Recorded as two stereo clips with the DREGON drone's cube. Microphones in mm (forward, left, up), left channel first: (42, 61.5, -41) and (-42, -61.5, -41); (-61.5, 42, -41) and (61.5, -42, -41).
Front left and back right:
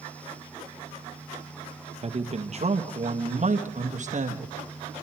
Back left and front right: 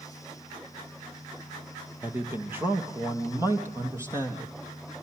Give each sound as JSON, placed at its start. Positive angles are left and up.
{"t": 2.0, "sound": "a man speaking", "azimuth_deg": -110, "distance_m": 1.8}